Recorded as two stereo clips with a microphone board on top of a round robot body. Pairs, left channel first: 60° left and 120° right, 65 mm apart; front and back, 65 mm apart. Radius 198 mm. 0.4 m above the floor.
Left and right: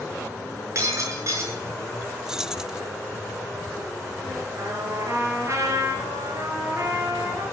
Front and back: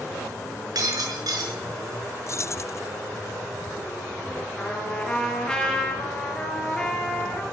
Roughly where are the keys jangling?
Ahead right.